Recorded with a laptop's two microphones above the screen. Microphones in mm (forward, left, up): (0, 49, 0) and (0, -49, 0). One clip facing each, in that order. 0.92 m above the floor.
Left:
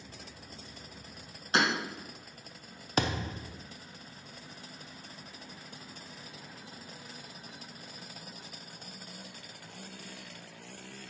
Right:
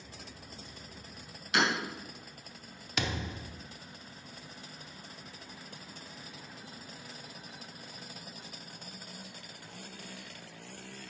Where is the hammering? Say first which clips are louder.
Left 1 dB; 35° left (ahead or behind), 2.0 m.